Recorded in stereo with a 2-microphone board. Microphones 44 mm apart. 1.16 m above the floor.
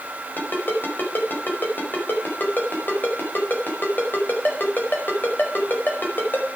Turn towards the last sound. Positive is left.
turn(degrees=45)  # may be behind; listen again after turning